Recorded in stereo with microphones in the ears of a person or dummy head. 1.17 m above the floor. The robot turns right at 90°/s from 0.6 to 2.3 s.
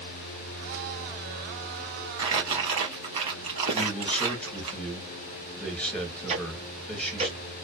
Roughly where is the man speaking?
Centre.